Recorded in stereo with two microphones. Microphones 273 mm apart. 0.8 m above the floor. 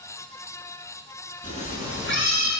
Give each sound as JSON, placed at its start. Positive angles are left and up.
{"t": 1.4, "sound": "a cat meowing", "side_deg": 20, "distance_m": 1.2}